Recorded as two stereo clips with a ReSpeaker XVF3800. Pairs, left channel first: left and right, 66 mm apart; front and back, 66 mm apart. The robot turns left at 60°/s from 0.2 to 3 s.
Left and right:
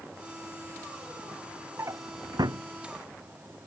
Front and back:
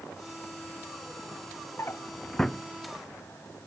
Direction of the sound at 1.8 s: 45° right.